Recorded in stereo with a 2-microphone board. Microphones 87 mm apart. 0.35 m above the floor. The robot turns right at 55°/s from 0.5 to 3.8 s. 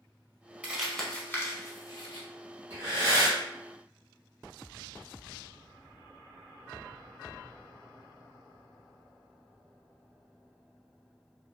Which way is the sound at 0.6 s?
15° right (ahead or behind).